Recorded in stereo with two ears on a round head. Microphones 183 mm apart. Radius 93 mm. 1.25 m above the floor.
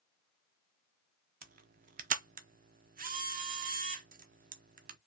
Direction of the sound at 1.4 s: 45° right (ahead or behind).